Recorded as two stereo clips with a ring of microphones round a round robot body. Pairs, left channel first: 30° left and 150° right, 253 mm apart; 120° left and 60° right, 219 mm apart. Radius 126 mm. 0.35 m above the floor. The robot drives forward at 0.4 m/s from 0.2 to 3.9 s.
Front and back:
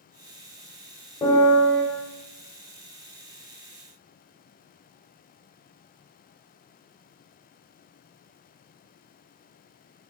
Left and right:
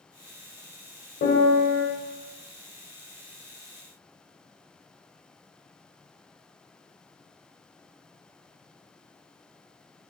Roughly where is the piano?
Left.